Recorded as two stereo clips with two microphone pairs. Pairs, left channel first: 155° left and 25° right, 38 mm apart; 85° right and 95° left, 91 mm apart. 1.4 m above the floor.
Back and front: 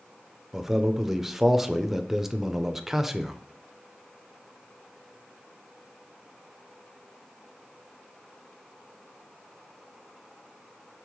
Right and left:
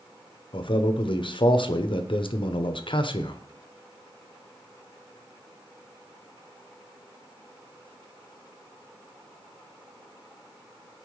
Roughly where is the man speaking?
Right.